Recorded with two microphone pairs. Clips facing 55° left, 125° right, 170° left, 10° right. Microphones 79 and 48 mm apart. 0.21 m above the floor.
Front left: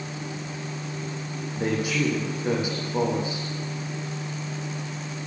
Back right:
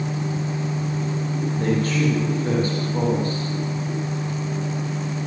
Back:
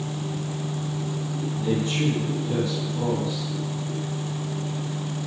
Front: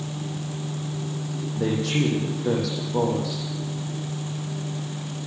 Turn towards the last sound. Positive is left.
turn(degrees=-25)